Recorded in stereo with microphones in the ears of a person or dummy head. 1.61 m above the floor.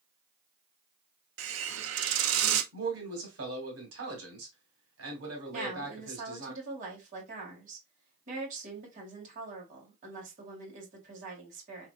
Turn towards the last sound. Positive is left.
turn(degrees=-50)  # may be behind; listen again after turning